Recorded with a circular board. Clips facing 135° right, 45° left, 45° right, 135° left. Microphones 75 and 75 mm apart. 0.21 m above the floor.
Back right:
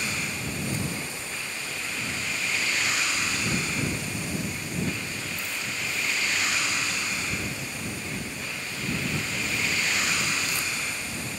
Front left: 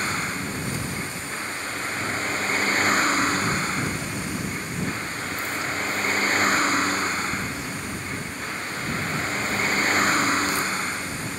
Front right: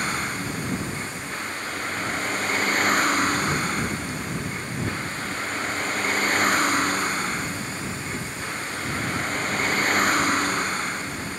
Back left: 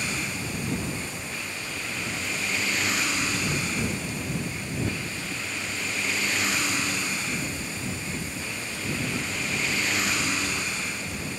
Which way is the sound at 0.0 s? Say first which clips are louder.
Front left 5 dB, front right 4 dB; 5° right.